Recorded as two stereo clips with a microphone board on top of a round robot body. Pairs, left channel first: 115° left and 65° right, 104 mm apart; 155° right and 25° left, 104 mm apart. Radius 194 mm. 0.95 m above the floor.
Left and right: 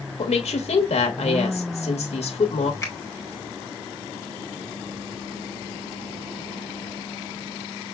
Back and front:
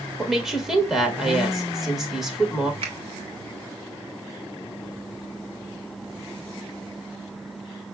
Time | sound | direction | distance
0.2 | a woman speaking | 110° left | 1.3 m
2.8 | a finger snap | 50° left | 1.7 m